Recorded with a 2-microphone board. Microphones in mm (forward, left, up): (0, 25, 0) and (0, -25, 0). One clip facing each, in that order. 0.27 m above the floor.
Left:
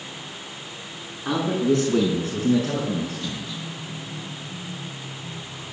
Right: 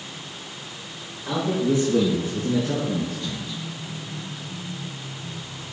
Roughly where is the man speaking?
Left.